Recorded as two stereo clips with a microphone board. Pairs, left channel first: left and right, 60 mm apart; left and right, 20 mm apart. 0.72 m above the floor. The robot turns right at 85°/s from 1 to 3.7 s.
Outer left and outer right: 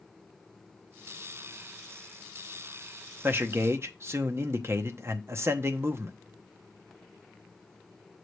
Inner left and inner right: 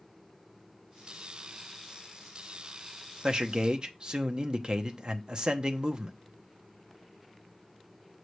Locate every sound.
3.2 s a man speaking: 125° right, 0.8 m; by 6.2 s 85° right, 0.8 m